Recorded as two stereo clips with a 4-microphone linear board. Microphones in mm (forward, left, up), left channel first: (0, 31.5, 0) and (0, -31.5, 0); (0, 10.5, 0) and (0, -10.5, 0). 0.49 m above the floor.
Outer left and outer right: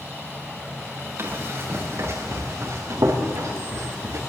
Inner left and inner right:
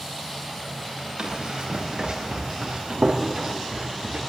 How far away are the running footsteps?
About 5 m.